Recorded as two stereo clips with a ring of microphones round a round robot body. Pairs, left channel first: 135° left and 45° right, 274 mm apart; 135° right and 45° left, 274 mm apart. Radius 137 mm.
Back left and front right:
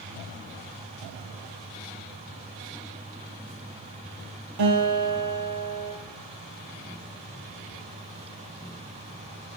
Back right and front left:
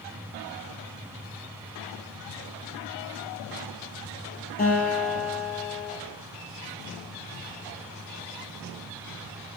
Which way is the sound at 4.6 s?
75° right.